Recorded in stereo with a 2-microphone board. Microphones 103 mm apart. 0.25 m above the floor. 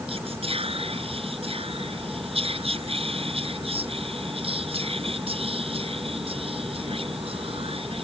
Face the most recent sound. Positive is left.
turn(degrees=-70)  # may be behind; listen again after turning